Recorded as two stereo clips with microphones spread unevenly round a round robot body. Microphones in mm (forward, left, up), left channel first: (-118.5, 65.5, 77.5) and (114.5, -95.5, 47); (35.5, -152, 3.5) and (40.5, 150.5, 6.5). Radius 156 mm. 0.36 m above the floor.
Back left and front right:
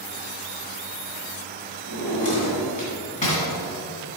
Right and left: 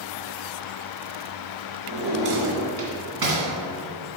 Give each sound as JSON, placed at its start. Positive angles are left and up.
{"t": 1.9, "sound": "a drawer", "azimuth_deg": 80, "distance_m": 2.5}